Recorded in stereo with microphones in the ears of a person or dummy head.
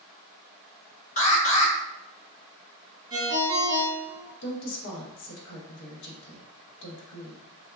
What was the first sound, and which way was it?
An alarm, 40° left (ahead or behind).